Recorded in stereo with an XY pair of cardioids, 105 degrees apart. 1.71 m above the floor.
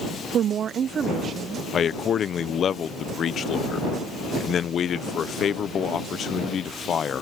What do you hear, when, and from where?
0.3 s a woman speaking: 60° right; by 1.6 s 45° right
1.7 s a man speaking: 55° left